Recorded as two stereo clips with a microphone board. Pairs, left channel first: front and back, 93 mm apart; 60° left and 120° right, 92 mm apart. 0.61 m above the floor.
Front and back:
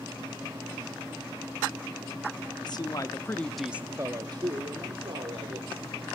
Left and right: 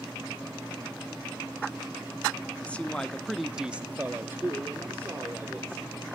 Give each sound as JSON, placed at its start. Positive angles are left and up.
{"t": 2.6, "sound": "a man speaking", "azimuth_deg": -15, "distance_m": 1.0}